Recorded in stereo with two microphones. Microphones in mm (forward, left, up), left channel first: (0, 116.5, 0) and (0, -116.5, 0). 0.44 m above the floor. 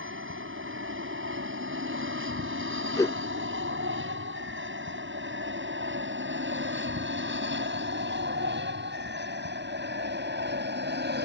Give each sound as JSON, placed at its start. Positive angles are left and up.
{"t": 0.0, "sound": "an aircraft", "side_deg": -60}
{"t": 3.0, "sound": "a whoosh", "side_deg": 15}